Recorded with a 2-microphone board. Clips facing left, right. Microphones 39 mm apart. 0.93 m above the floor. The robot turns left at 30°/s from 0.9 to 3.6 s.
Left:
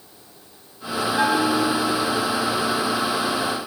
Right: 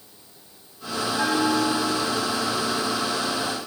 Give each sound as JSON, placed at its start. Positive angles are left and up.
{"t": 1.2, "sound": "a bell", "side_deg": 45, "distance_m": 3.5}